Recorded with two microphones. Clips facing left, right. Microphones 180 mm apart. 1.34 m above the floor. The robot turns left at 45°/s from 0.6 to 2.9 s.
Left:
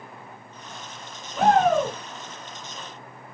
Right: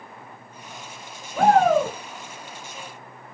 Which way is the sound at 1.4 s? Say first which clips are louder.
Right 2 dB; 60° right (ahead or behind).